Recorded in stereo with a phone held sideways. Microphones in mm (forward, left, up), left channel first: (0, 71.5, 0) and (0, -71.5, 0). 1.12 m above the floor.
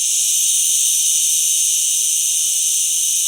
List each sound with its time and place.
0.0 s an insect: 5° left (ahead or behind), 1.3 m